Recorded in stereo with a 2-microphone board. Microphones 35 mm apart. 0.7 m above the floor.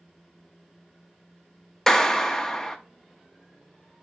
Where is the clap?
15° left (ahead or behind), 0.9 m.